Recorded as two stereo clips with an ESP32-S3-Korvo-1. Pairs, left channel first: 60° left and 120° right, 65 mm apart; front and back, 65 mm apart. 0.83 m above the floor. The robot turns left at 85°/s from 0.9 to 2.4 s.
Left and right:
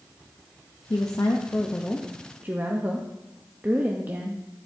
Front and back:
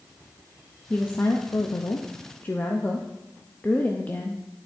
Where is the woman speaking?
65° left, 0.6 m; by 4.4 s 60° right, 0.6 m.